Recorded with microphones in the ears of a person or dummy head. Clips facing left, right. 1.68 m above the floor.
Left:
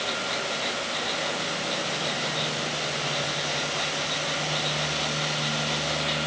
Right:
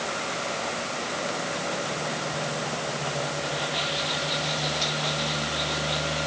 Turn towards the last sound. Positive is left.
No sound to turn to.